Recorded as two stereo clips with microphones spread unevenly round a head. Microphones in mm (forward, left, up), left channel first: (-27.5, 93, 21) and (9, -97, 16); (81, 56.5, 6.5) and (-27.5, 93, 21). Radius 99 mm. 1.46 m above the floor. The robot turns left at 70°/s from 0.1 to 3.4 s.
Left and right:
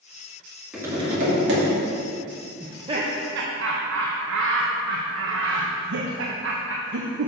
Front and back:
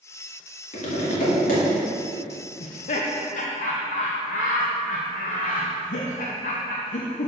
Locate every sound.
0.7 s tapping: 5° left, 2 m; by 1.6 s 55° right, 2 m
2.6 s laughter: 10° left, 0.6 m; by 7.3 s 45° right, 0.6 m